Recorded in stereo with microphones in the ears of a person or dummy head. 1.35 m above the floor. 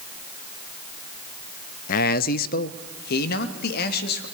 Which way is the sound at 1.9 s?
45° left (ahead or behind).